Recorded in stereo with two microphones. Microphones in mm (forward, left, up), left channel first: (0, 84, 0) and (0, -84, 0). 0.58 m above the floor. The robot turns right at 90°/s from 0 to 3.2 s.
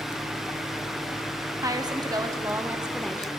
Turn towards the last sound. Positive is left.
turn(degrees=10)  # may be behind; listen again after turning